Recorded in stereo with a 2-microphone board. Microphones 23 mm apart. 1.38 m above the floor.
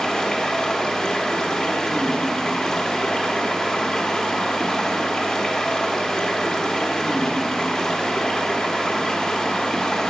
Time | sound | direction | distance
0.0 | running water | 25° left (ahead or behind) | 1.2 m